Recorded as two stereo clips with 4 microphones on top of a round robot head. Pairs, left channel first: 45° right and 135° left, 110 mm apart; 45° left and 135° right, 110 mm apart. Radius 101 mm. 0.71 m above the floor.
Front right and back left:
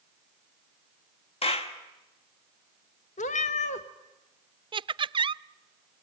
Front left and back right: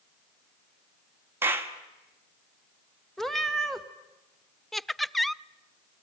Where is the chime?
No chime in this recording.